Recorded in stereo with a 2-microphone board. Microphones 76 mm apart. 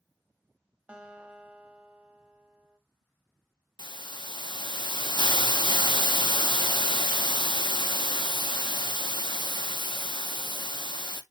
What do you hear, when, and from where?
0.9 s a guitar: 15° right (ahead or behind), 0.6 m
3.8 s a hiss: 75° left (ahead or behind), 0.6 m